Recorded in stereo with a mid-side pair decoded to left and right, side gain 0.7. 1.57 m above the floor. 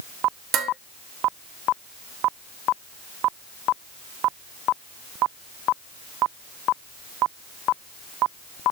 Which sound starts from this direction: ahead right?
Dishes clattering, at 0.5 s.